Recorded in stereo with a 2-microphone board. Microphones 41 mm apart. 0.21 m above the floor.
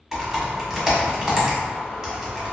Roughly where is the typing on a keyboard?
Centre.